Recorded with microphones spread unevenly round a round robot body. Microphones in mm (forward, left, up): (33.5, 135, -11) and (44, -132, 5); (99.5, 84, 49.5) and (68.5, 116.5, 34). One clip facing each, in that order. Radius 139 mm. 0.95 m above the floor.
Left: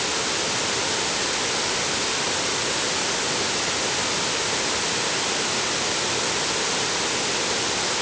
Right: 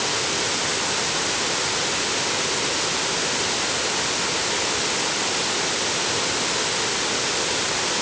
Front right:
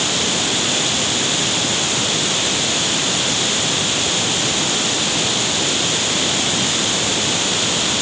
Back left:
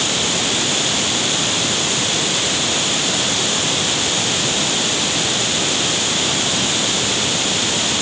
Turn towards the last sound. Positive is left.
No sound to turn to.